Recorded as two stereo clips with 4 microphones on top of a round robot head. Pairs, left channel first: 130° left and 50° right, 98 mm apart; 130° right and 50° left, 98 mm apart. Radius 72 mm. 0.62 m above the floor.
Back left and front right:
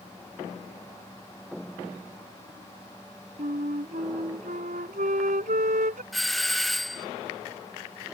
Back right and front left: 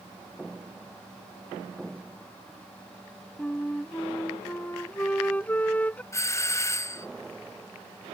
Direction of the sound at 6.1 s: 145° right.